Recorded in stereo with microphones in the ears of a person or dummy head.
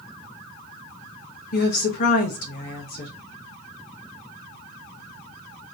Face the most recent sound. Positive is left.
turn(degrees=60)  # may be behind; listen again after turning